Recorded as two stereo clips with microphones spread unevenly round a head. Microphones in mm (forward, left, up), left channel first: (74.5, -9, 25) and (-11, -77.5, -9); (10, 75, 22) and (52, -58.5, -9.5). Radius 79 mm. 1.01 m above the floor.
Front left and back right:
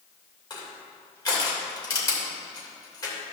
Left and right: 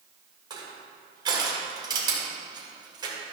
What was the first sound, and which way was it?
Crushing, 10° right.